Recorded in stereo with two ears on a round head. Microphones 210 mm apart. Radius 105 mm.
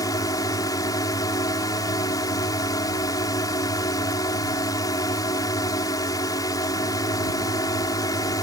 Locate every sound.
0.0 s a drone: 15° left (ahead or behind)